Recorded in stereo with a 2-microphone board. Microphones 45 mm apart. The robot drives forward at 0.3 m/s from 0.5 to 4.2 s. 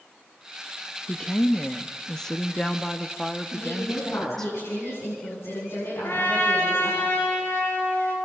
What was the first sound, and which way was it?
A woman speaking, 15° left (ahead or behind).